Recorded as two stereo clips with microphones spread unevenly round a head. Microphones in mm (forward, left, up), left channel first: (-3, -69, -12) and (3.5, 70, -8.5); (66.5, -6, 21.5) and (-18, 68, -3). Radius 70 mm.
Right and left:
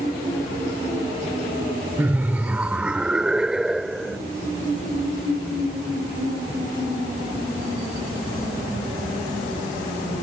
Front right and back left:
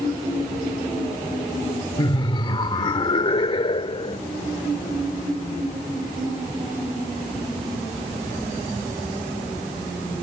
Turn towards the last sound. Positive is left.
turn(degrees=0)